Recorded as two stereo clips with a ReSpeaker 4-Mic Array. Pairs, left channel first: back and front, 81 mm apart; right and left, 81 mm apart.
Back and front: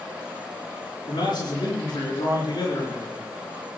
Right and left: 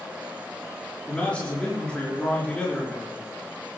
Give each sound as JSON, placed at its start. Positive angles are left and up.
{"t": 1.1, "sound": "a man speaking", "azimuth_deg": -165, "distance_m": 5.5}